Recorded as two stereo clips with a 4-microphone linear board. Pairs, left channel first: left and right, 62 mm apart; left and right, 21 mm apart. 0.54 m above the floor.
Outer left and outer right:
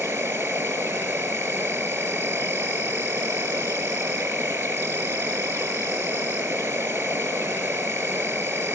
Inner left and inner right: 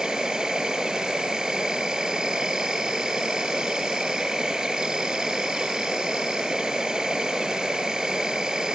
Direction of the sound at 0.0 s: 35° right (ahead or behind).